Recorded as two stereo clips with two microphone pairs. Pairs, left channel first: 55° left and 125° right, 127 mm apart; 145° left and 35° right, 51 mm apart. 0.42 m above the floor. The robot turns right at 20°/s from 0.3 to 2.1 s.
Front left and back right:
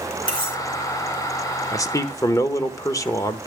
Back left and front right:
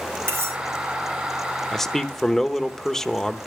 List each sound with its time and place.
0.3 s cutlery clinking: straight ahead, 4.5 m; by 0.6 s 5° left, 4.5 m
1.7 s a man speaking: 65° left, 0.9 m; by 3.5 s 70° left, 0.9 m